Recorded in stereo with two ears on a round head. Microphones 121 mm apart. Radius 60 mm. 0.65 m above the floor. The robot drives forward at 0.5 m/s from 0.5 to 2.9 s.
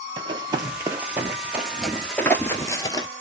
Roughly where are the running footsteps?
Right.